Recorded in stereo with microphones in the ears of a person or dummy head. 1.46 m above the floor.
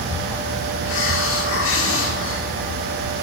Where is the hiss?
70° left (ahead or behind), 1.2 m.